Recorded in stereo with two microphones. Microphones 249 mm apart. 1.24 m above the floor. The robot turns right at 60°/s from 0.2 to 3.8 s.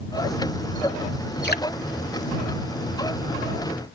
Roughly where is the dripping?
Left.